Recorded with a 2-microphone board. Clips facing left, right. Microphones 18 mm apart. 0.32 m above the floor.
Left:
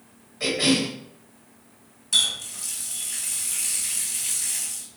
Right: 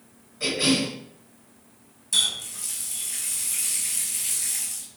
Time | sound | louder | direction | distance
0.4 | a cough | left 1 dB | 20° left (ahead or behind) | 1.7 m
2.1 | a running tap | left 2 dB | 10° left (ahead or behind) | 1.3 m